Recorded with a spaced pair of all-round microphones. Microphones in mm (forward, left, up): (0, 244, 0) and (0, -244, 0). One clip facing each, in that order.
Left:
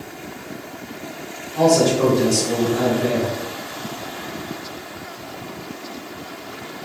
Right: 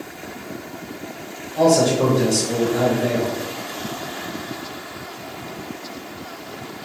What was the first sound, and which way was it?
A man speaking, 20° left (ahead or behind).